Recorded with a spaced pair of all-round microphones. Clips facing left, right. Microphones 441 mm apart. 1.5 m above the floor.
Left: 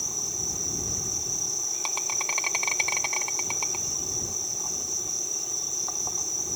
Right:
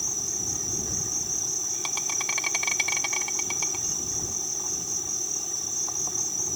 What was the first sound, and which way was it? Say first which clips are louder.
An insect: right 1 dB; 30° right (ahead or behind).